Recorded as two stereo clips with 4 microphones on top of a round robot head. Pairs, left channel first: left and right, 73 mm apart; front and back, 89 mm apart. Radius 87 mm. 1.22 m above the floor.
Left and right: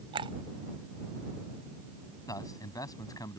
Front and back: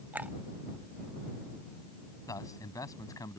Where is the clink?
100° right.